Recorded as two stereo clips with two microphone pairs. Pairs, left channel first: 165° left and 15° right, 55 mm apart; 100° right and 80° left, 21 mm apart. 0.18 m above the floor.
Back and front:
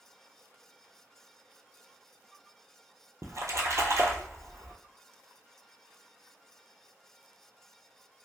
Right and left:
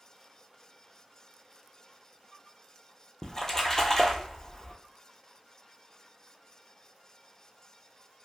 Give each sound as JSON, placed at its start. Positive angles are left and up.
{"t": 3.2, "sound": "a splash", "azimuth_deg": -35, "distance_m": 0.8}